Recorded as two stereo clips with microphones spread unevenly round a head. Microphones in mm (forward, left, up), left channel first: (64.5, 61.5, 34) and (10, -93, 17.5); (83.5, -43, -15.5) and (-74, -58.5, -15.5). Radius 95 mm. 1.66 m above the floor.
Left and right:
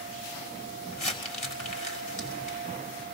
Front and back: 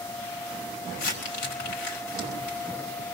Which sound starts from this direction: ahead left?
Crumpling, at 0.9 s.